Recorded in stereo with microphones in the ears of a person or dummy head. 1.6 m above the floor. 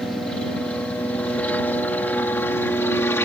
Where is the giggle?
I don't hear a giggle.